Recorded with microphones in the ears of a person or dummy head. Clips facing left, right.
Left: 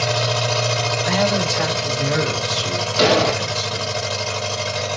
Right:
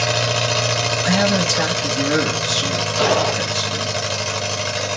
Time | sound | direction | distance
0.0 | an engine running | 35° right (ahead or behind) | 0.9 m
1.0 | a man speaking | 80° right | 1.8 m
3.0 | an explosion | 20° left (ahead or behind) | 0.5 m